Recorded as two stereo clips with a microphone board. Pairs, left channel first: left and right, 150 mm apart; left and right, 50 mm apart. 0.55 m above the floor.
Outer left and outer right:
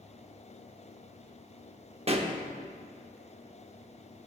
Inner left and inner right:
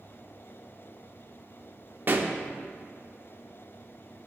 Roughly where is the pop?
Right.